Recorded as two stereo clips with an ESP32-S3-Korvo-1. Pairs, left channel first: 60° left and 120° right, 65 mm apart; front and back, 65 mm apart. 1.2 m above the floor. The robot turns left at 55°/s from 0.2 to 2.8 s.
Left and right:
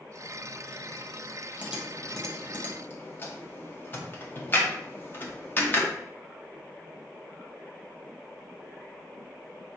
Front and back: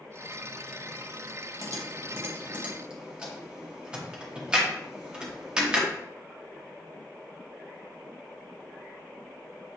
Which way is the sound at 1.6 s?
175° left.